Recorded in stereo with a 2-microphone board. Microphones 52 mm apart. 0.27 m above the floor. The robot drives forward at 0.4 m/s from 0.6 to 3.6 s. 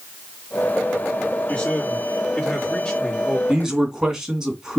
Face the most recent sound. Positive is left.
turn(degrees=-10)  # may be behind; listen again after turning